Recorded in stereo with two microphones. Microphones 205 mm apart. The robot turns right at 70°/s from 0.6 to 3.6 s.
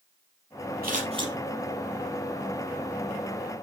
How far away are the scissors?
About 4 m.